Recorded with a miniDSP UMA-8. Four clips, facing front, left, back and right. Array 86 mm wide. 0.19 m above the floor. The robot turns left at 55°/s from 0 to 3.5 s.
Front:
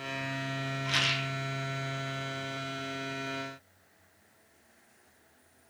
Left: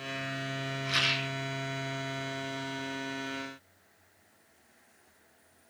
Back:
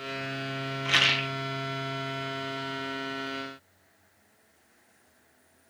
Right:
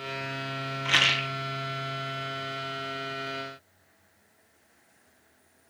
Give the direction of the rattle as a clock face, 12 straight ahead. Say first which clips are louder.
Right 7 dB, back 6 dB; 4 o'clock.